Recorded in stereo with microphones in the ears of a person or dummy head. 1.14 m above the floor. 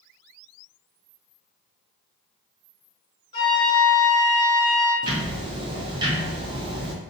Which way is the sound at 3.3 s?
20° left (ahead or behind).